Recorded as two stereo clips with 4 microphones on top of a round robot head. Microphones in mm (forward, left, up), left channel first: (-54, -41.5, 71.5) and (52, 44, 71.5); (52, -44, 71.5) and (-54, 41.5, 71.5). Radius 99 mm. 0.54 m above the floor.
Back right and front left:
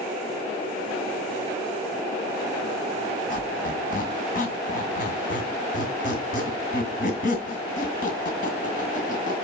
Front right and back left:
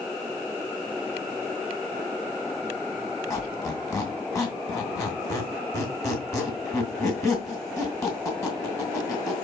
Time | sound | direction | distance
3.3 | a squeak | 110° right | 2.5 m